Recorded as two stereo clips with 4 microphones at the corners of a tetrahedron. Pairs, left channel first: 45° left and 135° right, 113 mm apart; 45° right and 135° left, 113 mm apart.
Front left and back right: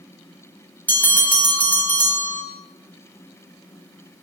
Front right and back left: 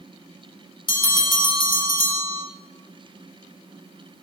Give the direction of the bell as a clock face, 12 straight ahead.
1 o'clock.